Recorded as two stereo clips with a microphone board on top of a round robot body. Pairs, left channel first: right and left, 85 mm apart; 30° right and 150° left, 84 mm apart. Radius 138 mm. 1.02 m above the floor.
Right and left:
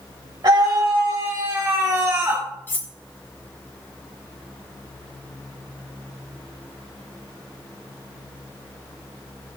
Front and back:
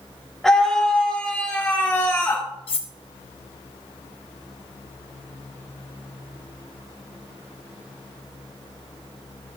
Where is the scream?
55° left, 1.8 m; by 2.5 s 20° left, 1.5 m.